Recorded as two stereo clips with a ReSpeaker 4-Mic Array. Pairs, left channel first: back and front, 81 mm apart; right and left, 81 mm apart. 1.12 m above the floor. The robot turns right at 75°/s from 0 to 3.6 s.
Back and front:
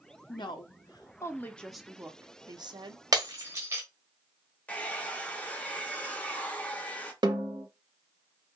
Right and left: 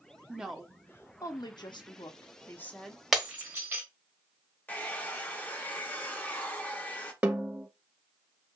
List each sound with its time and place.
0.3 s a woman speaking: 160° left, 0.5 m; by 3.0 s 5° left, 0.5 m
3.1 s breaking glass: straight ahead, 1.0 m; by 3.8 s 40° left, 1.0 m
4.7 s a hair dryer: 130° right, 0.6 m
7.2 s a snare drum: 15° left, 1.0 m